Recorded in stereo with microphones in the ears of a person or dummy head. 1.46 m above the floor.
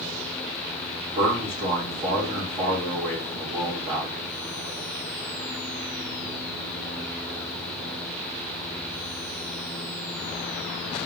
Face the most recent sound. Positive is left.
turn(degrees=-30)  # may be behind; listen again after turning